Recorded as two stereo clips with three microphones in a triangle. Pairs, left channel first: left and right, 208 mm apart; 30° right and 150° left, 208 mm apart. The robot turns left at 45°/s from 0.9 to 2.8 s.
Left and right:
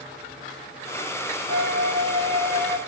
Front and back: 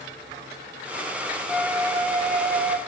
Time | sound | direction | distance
1.5 | a flute | 120° right | 3 m